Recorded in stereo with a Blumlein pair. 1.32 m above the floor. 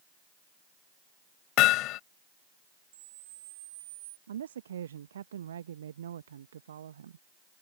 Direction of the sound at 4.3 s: 65° right.